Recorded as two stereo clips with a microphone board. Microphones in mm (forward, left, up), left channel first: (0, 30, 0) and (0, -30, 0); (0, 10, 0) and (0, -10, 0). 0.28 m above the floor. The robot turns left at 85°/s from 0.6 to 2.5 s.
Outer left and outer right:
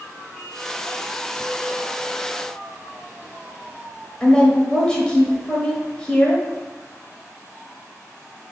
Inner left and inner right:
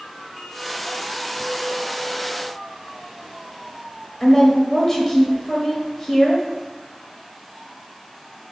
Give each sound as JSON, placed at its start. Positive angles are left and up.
{"t": 4.2, "sound": "a woman speaking", "side_deg": 15, "distance_m": 1.0}